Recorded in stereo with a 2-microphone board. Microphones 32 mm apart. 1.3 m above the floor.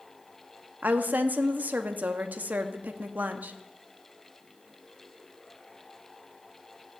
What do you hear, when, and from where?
0.8 s a woman speaking: 60° right (ahead or behind), 0.7 m